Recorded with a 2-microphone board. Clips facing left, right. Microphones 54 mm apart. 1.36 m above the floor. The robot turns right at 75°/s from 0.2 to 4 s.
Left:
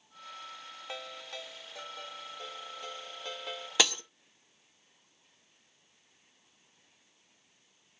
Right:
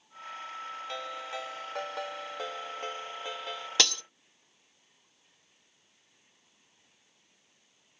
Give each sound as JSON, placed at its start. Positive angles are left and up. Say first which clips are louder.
{"t": 0.9, "sound": "a ringtone", "louder": "right 3 dB", "azimuth_deg": 165, "distance_m": 1.8}
{"t": 3.8, "sound": "breaking glass", "louder": "left 1 dB", "side_deg": 5, "distance_m": 0.6}